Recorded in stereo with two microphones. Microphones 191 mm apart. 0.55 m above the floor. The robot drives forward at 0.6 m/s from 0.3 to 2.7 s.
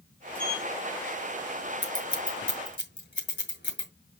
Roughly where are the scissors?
Left.